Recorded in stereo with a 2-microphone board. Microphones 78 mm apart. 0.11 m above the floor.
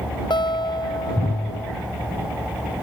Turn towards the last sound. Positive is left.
turn(degrees=75)  # may be behind; listen again after turning